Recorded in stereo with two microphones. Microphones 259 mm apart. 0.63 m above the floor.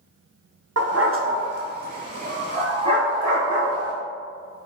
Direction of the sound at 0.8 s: 70° right (ahead or behind).